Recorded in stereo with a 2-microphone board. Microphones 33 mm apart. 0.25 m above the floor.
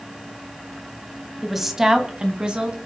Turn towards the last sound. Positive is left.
turn(degrees=-30)  # may be behind; listen again after turning